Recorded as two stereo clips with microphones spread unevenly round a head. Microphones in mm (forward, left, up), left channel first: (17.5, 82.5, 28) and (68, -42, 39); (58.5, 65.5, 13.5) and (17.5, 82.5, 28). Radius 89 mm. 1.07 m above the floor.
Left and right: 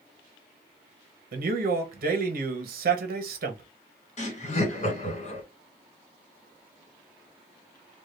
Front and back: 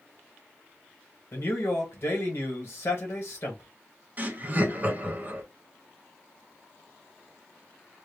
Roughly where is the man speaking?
Ahead right.